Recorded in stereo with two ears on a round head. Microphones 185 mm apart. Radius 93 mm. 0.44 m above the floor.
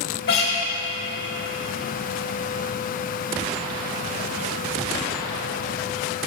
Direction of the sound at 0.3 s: 50° left (ahead or behind).